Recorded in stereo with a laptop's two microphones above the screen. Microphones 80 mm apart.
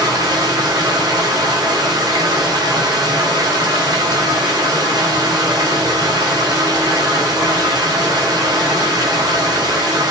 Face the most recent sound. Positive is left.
turn(degrees=-50)  # may be behind; listen again after turning